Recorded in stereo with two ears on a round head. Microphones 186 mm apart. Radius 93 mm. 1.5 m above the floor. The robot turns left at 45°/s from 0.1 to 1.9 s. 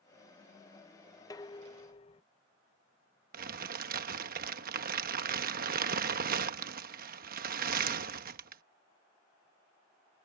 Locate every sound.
1.3 s dishes clattering: 20° left (ahead or behind); by 2.2 s 30° left (ahead or behind)
3.3 s crumpling: 45° right (ahead or behind)